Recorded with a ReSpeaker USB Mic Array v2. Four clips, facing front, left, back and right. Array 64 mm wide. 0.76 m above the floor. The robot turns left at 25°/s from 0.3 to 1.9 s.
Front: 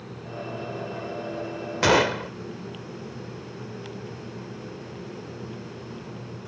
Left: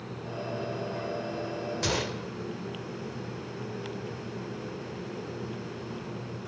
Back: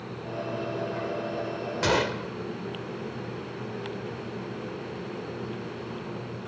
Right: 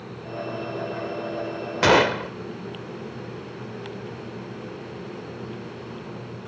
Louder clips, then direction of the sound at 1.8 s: Right 18 dB, front 6 dB; 60° right.